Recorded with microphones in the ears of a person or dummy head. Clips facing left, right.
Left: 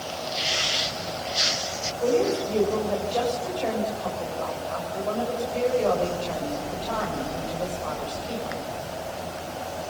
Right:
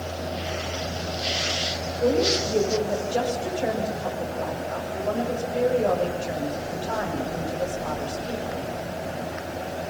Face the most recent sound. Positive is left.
turn(degrees=-25)  # may be behind; listen again after turning